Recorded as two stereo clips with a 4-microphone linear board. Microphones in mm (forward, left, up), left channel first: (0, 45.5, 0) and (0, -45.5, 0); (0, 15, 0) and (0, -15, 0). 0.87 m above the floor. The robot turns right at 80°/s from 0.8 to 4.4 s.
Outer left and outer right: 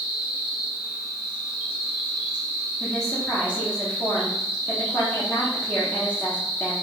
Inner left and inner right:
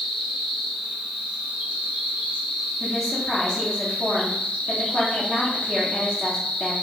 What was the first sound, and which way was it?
An insect, 165° right.